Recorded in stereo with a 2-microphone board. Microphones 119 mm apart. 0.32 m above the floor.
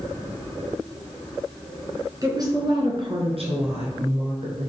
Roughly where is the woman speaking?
Right.